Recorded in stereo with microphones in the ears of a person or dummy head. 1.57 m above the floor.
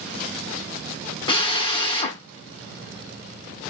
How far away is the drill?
About 0.7 m.